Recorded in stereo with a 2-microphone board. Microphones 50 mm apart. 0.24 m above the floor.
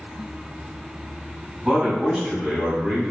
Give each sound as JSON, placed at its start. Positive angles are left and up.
{"t": 1.6, "sound": "a man speaking", "side_deg": -15, "distance_m": 1.7}